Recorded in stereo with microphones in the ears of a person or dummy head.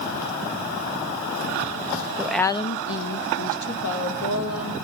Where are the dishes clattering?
No dishes clattering in this recording.